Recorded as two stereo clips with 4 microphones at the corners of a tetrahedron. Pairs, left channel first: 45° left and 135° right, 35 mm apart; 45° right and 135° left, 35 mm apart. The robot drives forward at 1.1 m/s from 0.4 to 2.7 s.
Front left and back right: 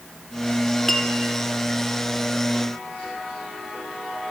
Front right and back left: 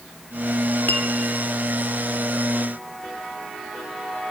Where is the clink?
35° right, 2.5 m; by 1.1 s 40° right, 2.5 m.